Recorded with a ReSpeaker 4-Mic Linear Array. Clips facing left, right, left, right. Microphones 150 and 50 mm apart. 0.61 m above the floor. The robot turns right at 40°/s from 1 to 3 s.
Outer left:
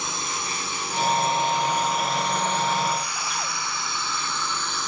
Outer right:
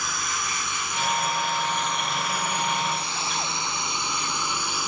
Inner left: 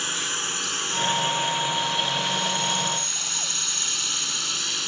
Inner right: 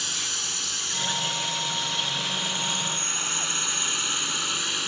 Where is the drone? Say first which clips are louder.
Outer left 1 dB, inner left 4 dB; 30° left (ahead or behind); by 4.9 s 10° right (ahead or behind).